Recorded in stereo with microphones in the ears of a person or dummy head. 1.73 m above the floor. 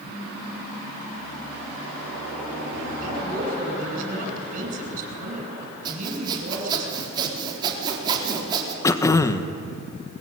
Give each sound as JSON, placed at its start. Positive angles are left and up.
{"t": 3.0, "sound": "a woman speaking", "side_deg": -45, "distance_m": 9.0}
{"t": 5.8, "sound": "sawing", "side_deg": -25, "distance_m": 4.0}
{"t": 8.8, "sound": "throat clearing", "side_deg": 15, "distance_m": 1.3}